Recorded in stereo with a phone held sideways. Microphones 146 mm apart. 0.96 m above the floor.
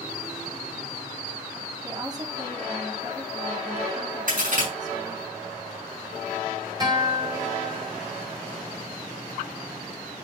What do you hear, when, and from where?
1.8 s a woman speaking: 25° right (ahead or behind), 2 m
4.3 s a crack: 65° right (ahead or behind), 6 m
6.8 s a guitar: 25° right (ahead or behind), 3 m